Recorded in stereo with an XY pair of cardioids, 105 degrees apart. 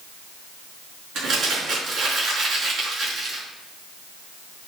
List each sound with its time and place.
1.1 s crumpling: 65° right, 5.5 m